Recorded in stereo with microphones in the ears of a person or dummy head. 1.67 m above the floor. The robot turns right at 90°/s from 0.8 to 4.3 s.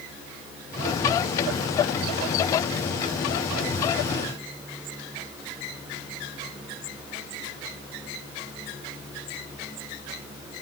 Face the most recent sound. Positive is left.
No sound to turn to.